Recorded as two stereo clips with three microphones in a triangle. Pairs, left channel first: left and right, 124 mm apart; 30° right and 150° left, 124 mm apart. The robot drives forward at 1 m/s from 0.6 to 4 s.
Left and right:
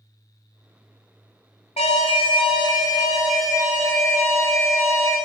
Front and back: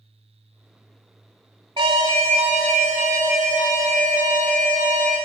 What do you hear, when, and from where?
1.8 s an alarm: 110° left, 1.2 m; by 5.2 s 160° left, 3 m